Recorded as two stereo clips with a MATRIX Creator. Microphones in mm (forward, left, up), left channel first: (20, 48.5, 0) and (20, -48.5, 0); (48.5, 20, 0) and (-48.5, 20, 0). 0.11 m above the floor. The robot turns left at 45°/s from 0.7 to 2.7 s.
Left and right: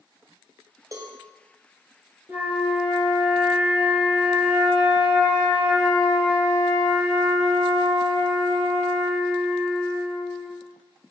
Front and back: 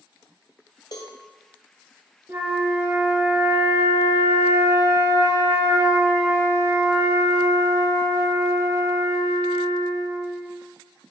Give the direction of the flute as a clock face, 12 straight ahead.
5 o'clock.